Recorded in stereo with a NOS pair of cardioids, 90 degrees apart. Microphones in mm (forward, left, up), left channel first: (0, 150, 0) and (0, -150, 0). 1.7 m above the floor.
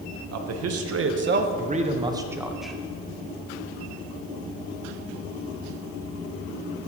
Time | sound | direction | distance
0.3 | a man speaking | 60° right | 1.3 m